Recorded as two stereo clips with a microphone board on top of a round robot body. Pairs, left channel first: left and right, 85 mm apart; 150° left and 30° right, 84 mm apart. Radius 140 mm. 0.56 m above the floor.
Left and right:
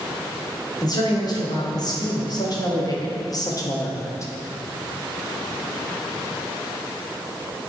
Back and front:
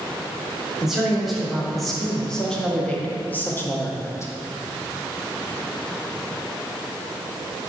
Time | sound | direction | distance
0.8 | a man speaking | 55° left | 2.5 m